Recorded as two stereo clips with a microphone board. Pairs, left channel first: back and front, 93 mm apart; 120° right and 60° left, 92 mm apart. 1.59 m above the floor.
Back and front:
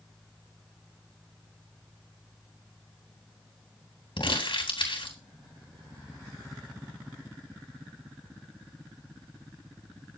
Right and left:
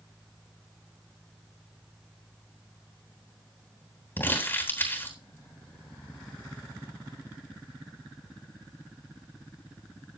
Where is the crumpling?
175° left, 3.5 m.